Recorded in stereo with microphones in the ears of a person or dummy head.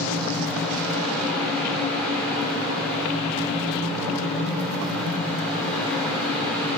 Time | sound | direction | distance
0.0 | a fan | 5° left (ahead or behind) | 2.5 m